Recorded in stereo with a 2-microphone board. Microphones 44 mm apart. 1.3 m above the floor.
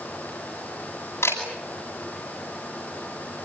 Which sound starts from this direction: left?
A camera shutter, at 1.2 s.